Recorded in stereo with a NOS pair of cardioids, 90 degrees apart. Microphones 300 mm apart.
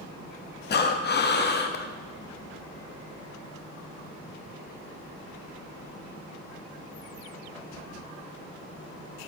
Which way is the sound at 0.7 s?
35° left.